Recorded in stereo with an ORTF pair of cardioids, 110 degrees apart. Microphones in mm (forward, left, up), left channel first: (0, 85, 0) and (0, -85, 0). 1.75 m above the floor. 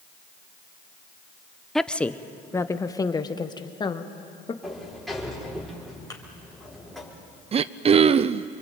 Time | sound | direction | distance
1.8 | a woman speaking | straight ahead | 0.9 m
4.6 | a sliding door | straight ahead | 5.5 m
6.1 | a thud | 20° left | 4 m
7.5 | throat clearing | 35° right | 0.7 m